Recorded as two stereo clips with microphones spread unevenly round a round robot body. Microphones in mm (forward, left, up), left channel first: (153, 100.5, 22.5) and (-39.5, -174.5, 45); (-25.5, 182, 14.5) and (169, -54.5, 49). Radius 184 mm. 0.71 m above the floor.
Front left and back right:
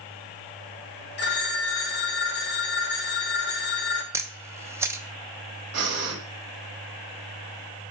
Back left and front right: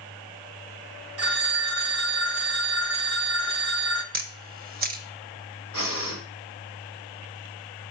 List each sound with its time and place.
1.2 s a phone ringing: 5° right, 1.3 m
4.1 s a camera shutter: 45° right, 0.7 m
5.7 s breathing: 90° right, 2.0 m